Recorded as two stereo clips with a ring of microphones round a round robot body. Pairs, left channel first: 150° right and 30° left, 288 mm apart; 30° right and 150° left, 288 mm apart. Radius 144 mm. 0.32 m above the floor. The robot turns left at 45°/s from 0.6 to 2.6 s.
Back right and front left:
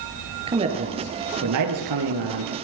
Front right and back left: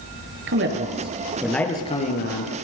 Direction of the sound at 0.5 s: 100° left.